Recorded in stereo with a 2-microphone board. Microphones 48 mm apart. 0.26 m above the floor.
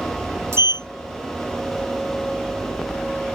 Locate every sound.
0.5 s a sliding door: 80° right